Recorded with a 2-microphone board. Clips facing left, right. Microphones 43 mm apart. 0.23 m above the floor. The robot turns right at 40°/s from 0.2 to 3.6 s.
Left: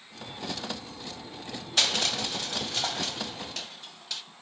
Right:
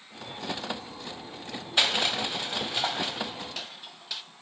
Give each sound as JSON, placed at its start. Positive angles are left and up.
{"t": 1.8, "sound": "crushing", "side_deg": -20, "distance_m": 0.7}